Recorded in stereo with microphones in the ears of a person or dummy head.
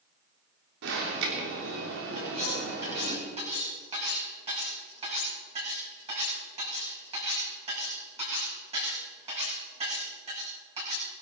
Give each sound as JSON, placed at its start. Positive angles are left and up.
{"t": 0.8, "sound": "an alarm", "side_deg": -75, "distance_m": 3.0}
{"t": 2.1, "sound": "cutlery clinking", "side_deg": -35, "distance_m": 6.5}